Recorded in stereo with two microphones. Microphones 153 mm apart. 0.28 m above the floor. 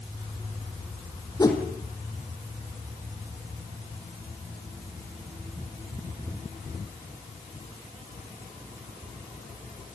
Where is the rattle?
I don't hear a rattle.